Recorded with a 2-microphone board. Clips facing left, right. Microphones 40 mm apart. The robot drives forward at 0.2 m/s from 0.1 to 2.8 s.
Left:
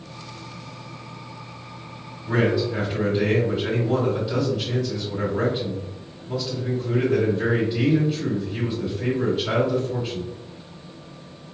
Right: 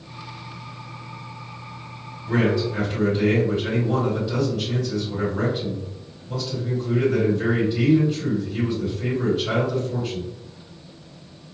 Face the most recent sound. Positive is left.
turn(degrees=10)  # may be behind; listen again after turning